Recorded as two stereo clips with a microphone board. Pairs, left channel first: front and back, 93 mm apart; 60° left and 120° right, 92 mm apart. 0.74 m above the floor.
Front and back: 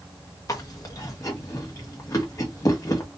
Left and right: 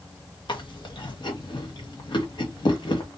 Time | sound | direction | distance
0.5 | chewing | 45° left | 0.9 m